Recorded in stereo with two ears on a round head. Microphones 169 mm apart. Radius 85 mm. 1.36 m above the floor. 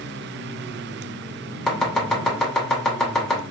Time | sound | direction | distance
1.7 | chopping | 5° left (ahead or behind) | 1.6 m